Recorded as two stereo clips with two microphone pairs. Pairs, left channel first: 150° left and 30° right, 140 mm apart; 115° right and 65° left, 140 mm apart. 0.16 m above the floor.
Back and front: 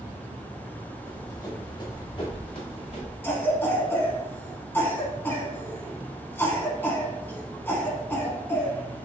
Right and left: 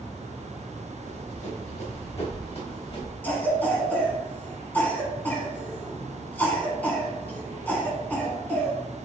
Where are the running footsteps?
140° right, 2 m; by 3.1 s 165° right, 2.5 m.